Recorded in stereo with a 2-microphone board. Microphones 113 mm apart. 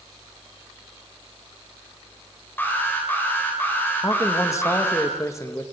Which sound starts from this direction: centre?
An alarm, at 2.6 s.